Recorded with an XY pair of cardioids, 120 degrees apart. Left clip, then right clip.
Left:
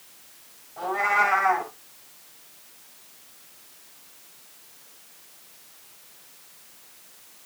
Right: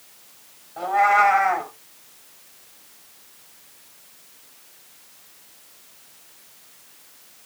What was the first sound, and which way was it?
A cat meowing, 40° right.